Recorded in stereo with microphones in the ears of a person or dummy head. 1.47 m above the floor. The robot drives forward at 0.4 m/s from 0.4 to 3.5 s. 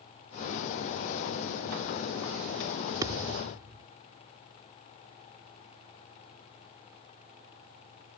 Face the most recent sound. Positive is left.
turn(degrees=-15)  # may be behind; listen again after turning